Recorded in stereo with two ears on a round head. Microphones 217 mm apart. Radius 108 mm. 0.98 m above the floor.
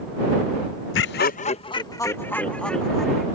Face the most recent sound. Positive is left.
turn(degrees=0)  # may be behind; listen again after turning